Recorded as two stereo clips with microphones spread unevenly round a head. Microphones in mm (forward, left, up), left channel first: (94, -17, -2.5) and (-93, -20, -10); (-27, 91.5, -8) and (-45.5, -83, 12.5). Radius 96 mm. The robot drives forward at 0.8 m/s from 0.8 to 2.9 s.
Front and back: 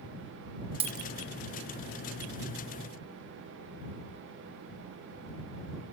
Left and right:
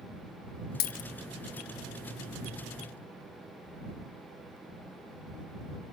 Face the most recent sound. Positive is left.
turn(degrees=165)